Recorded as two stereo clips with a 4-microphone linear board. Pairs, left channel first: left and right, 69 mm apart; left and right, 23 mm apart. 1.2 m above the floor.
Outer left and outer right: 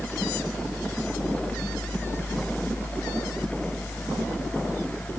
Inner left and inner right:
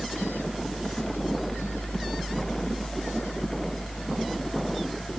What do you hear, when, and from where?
Only background noise.